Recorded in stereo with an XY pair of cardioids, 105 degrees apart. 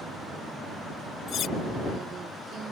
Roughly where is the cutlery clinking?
Ahead left.